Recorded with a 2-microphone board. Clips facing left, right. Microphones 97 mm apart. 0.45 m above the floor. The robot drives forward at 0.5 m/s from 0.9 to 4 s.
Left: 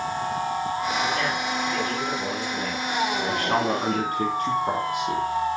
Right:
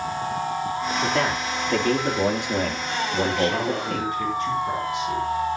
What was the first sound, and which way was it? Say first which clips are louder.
A man speaking: right 2 dB; 75° right (ahead or behind).